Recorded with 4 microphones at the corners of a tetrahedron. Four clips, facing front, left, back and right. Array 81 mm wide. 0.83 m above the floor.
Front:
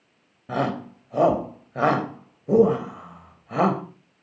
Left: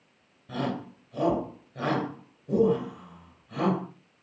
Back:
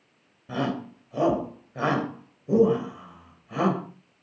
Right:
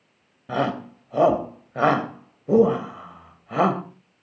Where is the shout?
55° right, 3 m.